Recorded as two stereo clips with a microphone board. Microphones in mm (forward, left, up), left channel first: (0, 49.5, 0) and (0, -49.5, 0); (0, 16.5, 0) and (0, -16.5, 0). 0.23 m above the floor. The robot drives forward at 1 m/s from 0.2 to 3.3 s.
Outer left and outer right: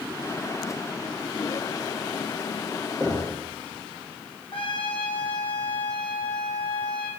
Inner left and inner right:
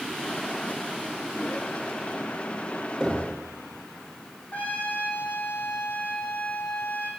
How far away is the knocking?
About 4 m.